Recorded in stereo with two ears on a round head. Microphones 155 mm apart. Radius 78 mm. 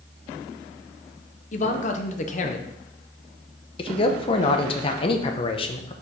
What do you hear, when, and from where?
1.5 s a man speaking: 45° left (ahead or behind), 0.8 m
3.8 s a man speaking: 30° left (ahead or behind), 0.8 m